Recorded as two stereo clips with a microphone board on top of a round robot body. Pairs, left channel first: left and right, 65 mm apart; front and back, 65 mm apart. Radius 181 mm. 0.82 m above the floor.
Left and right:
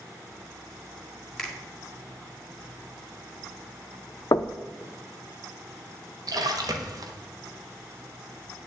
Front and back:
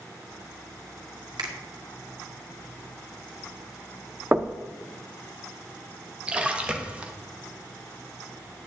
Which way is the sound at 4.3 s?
115° left.